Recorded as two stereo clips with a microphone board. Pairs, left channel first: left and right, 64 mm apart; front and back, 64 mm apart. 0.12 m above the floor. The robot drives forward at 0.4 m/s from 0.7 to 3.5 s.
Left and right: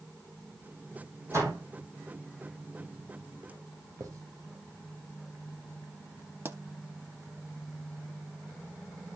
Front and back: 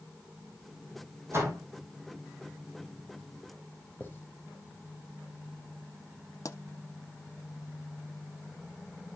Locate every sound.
1.3 s a door slam: 130° right, 4 m; by 1.7 s 135° right, 4 m
4.0 s writing: 60° right, 4 m
6.5 s a pop: 35° right, 0.6 m